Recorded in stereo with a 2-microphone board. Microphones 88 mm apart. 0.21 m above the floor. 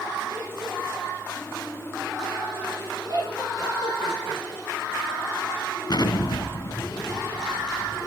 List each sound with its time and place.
3.1 s laughter: 45° right (ahead or behind), 7.5 m
5.9 s an explosion: 50° left (ahead or behind), 1.9 m